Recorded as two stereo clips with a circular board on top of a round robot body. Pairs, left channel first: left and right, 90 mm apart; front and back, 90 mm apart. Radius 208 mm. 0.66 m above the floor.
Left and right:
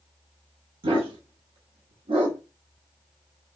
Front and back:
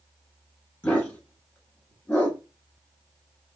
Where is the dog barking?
75° right, 1.0 m.